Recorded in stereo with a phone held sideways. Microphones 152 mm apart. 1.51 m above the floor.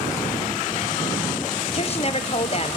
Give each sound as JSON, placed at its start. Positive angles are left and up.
{"t": 1.7, "sound": "a woman speaking", "side_deg": 40, "distance_m": 1.2}